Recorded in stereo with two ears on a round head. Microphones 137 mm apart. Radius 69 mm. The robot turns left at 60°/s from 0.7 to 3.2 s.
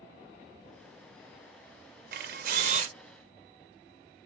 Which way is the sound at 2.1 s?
80° right.